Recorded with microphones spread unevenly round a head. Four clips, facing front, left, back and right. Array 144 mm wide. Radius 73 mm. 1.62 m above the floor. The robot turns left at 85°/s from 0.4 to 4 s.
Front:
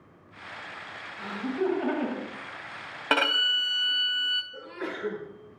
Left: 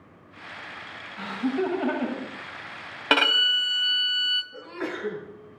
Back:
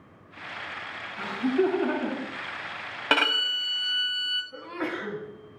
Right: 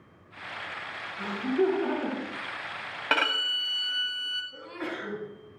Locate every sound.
1.2 s laughter: 145° left, 2.5 m; by 2.3 s 45° left, 2.5 m
3.1 s a violin: 95° left, 1.5 m; by 4.4 s 20° left, 1.5 m
4.5 s a sneeze: 175° left, 3.5 m